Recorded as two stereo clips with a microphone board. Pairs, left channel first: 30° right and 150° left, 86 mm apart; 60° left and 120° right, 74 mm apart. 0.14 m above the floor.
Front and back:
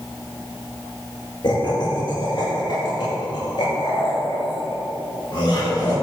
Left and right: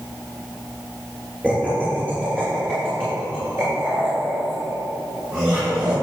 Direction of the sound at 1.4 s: 45° right.